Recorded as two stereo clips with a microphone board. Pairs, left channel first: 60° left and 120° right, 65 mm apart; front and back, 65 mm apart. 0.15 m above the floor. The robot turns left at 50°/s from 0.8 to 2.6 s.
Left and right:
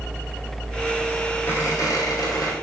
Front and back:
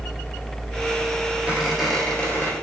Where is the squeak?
110° left, 3 m; by 2.5 s 55° left, 3 m.